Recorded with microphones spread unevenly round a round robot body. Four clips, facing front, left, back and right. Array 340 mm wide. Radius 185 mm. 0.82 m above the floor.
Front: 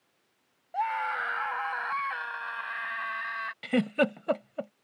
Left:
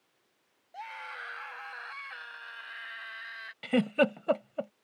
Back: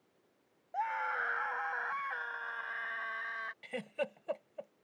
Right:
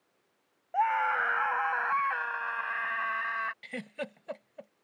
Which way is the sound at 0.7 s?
60° right.